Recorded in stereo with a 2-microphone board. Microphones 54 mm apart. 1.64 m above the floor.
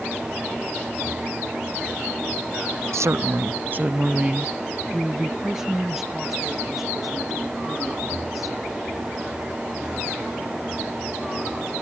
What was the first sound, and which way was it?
A woman speaking, 70° right (ahead or behind).